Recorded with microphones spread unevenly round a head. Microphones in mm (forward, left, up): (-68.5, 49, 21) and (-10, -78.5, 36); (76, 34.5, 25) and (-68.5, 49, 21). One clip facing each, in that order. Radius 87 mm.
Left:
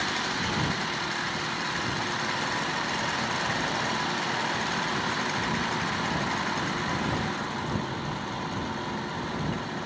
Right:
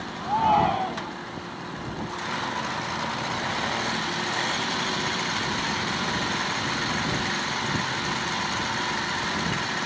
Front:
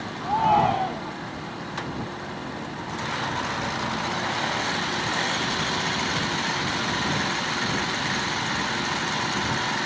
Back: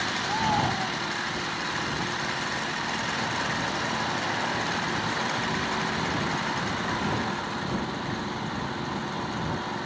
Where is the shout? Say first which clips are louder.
Right 15 dB, front 7 dB; 50° right.